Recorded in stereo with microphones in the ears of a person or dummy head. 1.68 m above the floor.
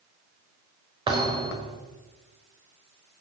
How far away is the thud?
About 4 m.